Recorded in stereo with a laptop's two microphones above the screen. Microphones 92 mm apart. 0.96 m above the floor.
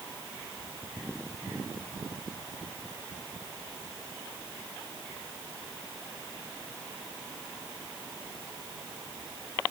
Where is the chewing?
I don't hear chewing.